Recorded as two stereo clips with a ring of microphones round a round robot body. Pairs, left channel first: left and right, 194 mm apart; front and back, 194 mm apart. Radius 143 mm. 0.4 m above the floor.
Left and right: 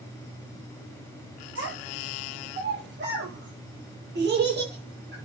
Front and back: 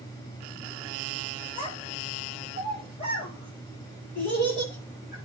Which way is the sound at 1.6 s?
70° right.